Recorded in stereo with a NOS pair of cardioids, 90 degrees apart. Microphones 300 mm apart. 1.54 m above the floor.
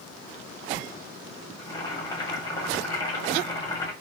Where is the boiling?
15° left, 1.6 m.